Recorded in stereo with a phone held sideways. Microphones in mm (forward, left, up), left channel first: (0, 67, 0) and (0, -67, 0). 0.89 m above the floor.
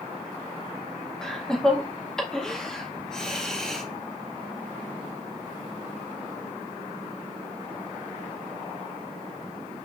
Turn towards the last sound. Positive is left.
turn(degrees=5)  # may be behind; listen again after turning